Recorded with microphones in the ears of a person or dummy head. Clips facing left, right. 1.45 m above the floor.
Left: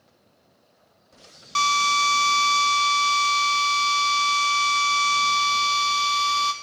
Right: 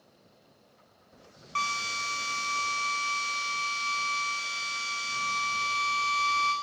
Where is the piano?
No piano in this recording.